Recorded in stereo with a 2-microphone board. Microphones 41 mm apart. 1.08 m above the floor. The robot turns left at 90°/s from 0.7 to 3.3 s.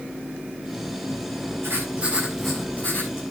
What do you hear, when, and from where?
1.6 s writing: 105° right, 7 m; by 3.2 s 110° left, 7 m